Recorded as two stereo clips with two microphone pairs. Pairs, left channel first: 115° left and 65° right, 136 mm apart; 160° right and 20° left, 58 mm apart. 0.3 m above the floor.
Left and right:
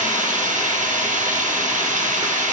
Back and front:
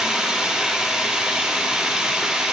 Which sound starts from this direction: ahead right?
Running water, at 0.0 s.